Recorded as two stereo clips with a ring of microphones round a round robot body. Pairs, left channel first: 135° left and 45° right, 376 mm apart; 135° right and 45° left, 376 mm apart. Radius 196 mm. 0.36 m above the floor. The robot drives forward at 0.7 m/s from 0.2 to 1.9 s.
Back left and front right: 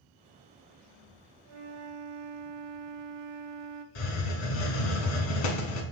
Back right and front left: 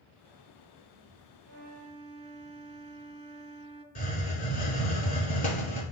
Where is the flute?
15° right, 0.7 m; by 3.9 s 25° right, 0.5 m.